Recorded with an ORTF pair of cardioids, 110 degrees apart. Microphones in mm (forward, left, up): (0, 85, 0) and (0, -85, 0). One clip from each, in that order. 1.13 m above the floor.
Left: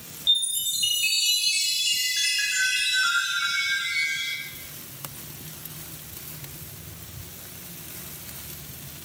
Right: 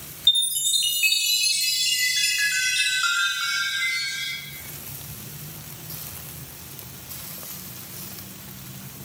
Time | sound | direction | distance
0.3 | a chime | 25° right | 0.7 m